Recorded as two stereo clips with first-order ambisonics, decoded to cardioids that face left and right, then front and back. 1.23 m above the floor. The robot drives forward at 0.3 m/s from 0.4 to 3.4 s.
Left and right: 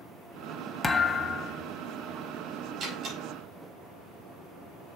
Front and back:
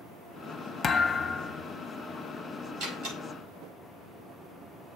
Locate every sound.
0.8 s a thud: 35° left, 0.7 m; by 1.6 s 95° left, 0.7 m
2.8 s a door slam: 145° right, 4.5 m